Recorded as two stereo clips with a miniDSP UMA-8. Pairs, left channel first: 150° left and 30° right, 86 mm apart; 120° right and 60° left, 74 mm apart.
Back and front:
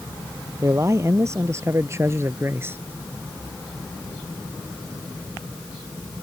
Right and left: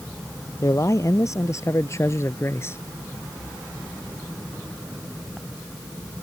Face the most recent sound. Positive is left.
turn(degrees=-80)